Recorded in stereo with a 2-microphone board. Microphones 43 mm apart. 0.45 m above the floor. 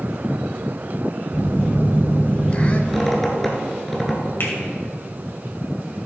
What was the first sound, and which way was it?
A phone buzzing, 30° left (ahead or behind).